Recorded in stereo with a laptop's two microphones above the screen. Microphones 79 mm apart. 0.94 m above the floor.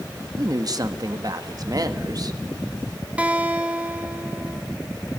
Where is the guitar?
15° right (ahead or behind), 1.0 m.